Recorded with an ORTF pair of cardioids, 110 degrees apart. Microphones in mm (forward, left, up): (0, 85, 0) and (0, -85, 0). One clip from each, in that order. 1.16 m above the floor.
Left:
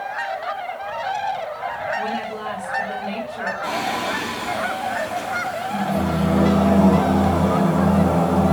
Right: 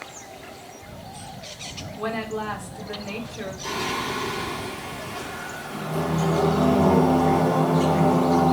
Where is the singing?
60° left, 3.5 m.